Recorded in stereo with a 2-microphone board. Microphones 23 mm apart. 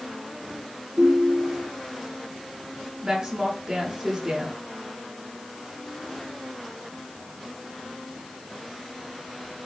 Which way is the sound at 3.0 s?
30° right (ahead or behind).